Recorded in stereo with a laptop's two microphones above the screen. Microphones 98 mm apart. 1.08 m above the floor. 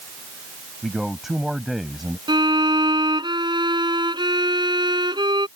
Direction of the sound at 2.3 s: 50° right (ahead or behind).